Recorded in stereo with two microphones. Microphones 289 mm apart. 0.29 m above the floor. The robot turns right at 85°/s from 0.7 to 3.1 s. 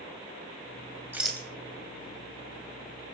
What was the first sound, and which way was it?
A rattle, 5° right (ahead or behind).